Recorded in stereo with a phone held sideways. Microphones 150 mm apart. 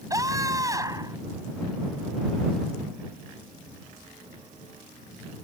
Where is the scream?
25° right (ahead or behind).